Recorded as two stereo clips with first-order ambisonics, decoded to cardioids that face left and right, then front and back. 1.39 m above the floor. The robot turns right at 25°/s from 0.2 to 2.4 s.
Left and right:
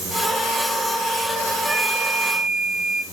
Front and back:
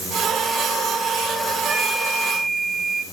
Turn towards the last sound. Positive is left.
turn(degrees=-90)